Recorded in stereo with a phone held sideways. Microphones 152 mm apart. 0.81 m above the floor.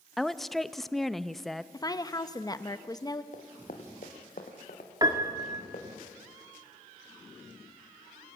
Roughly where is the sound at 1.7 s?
Left.